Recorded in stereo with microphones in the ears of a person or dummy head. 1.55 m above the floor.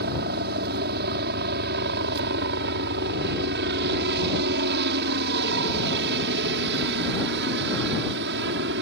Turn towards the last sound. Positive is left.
turn(degrees=-60)  # may be behind; listen again after turning